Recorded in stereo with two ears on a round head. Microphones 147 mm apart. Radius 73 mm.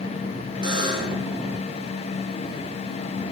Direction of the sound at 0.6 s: 30° right (ahead or behind).